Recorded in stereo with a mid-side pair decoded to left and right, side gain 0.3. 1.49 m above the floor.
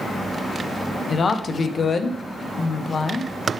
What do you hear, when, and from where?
1.1 s a woman speaking: 60° left, 1.0 m